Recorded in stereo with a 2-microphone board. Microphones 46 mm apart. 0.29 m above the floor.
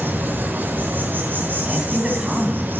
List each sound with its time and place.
0.0 s an insect: 45° right (ahead or behind), 1.6 m
1.6 s a man speaking: 20° right (ahead or behind), 3 m